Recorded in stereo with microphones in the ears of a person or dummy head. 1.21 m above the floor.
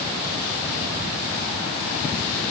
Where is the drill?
No drill in this recording.